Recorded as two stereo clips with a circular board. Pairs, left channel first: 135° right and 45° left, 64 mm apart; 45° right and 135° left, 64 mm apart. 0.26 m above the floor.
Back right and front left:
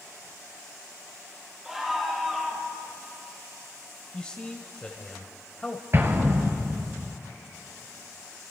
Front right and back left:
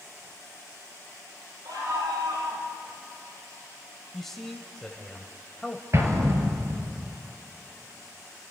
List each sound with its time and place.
1.6 s a scream: 130° left, 6.5 m; by 2.7 s 135° left, 6 m
4.1 s a man speaking: 120° right, 1.4 m
5.9 s an explosion: 95° left, 2 m